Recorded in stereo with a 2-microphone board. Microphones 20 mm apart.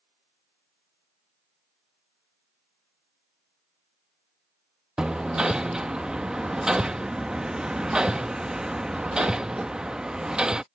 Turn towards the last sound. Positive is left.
turn(degrees=-40)  # may be behind; listen again after turning